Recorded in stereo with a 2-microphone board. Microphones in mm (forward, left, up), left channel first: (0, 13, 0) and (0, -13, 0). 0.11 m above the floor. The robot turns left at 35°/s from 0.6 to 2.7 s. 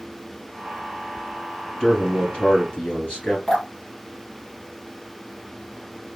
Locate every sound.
1.8 s a man speaking: 140° left, 2 m; by 3.4 s 105° left, 2 m
3.5 s dripping: 30° left (ahead or behind), 2.5 m